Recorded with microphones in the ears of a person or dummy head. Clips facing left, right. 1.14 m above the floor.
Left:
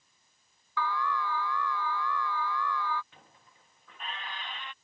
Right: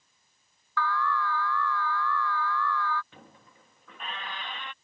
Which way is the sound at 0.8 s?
10° left (ahead or behind).